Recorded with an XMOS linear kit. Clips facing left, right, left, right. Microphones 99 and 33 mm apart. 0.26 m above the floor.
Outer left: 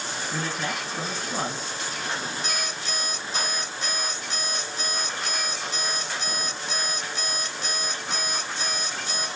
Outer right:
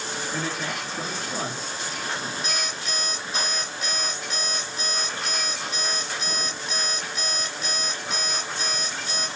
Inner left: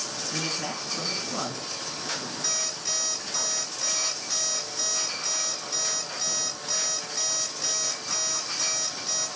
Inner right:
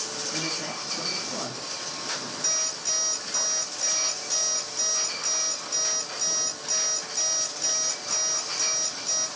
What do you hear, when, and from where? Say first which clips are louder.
0.3 s a man speaking: outer left 1 dB, inner left 1 dB; 60° left (ahead or behind), 2.5 m
2.4 s an alarm clock: even, inner right 1 dB; 30° left (ahead or behind), 1.4 m